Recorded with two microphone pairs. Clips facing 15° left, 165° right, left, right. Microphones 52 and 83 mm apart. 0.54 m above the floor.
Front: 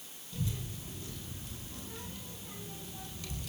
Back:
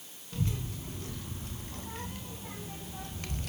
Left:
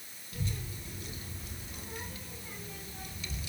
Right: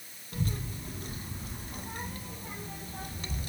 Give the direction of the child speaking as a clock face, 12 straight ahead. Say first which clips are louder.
Back 4 dB, right 5 dB; 4 o'clock.